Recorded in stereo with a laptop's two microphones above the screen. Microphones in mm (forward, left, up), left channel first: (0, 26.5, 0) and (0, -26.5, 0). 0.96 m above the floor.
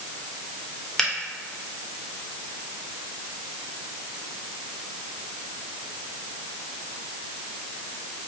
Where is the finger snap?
10° left (ahead or behind), 0.6 m.